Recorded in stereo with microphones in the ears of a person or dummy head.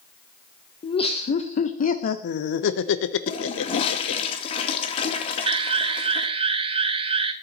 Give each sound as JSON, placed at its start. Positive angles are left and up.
{"t": 0.8, "sound": "laughter", "side_deg": 25, "distance_m": 1.6}
{"t": 3.3, "sound": "a toilet flushing", "side_deg": 40, "distance_m": 2.5}
{"t": 5.5, "sound": "an alarm", "side_deg": -30, "distance_m": 1.1}